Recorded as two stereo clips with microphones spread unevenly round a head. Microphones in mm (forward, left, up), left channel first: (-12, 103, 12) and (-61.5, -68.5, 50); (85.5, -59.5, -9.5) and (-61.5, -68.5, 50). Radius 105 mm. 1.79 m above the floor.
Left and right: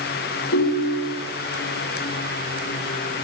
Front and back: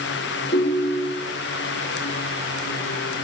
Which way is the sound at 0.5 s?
55° left.